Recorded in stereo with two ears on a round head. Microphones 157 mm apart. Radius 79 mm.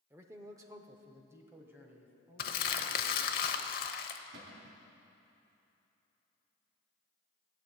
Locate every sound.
0.1 s a man speaking: 10° right (ahead or behind), 0.9 m
2.4 s crumpling: 50° left (ahead or behind), 0.8 m
4.3 s a cupboard door: 70° right (ahead or behind), 2.5 m